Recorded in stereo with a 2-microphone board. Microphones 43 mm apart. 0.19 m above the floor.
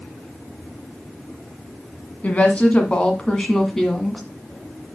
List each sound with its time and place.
2.2 s a woman speaking: 35° left (ahead or behind), 1.5 m; by 4.2 s 5° left (ahead or behind), 1.7 m